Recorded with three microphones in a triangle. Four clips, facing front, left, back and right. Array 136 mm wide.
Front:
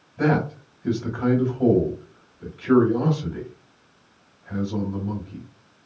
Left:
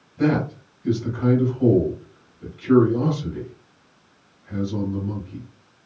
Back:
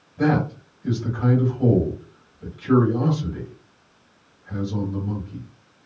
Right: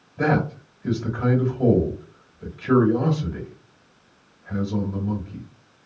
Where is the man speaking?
85° right, 1.9 m.